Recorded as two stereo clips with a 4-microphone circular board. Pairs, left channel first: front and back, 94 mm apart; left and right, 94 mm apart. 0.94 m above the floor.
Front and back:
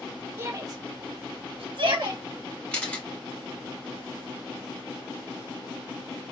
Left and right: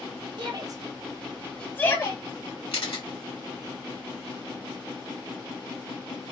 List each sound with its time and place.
0.4 s a shout: 120° right, 1.0 m; by 2.2 s 145° left, 1.2 m
2.7 s a camera shutter: 75° left, 1.6 m